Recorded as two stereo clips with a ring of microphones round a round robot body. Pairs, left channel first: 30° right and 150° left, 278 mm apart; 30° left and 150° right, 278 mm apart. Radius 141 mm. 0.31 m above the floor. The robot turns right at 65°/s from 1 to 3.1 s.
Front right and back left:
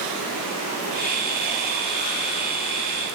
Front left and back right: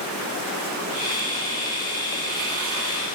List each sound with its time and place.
Only background noise.